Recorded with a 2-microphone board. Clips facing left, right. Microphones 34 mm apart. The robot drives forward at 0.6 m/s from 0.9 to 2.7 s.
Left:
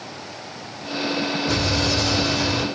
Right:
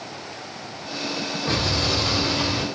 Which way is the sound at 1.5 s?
50° right (ahead or behind).